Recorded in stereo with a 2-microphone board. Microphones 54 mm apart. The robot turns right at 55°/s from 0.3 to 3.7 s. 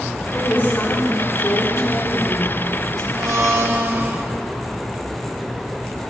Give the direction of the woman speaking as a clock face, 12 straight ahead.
11 o'clock.